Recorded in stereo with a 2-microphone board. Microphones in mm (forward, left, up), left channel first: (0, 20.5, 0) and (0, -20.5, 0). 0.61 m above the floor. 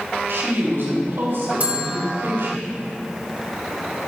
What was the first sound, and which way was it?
A woman speaking, 75° right (ahead or behind).